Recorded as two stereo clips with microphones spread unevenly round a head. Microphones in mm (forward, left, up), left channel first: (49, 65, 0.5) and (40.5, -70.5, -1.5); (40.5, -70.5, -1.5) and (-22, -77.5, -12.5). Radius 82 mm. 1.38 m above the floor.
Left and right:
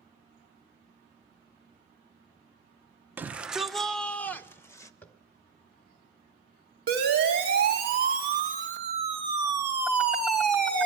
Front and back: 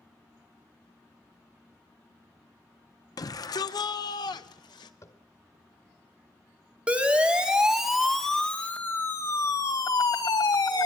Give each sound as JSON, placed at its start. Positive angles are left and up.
{"t": 3.2, "sound": "a shout", "azimuth_deg": -15, "distance_m": 1.1}
{"t": 5.0, "sound": "tapping", "azimuth_deg": 10, "distance_m": 1.7}
{"t": 6.9, "sound": "a siren", "azimuth_deg": -105, "distance_m": 3.5}